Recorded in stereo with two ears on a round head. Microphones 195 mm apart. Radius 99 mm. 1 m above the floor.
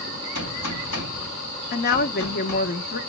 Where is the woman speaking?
45° left (ahead or behind), 1.0 m.